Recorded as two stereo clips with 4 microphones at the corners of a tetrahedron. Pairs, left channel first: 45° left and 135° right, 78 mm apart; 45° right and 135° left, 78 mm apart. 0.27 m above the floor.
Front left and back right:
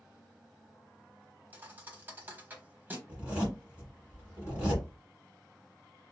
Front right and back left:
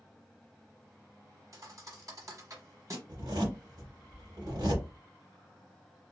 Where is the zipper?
155° left, 1.9 m.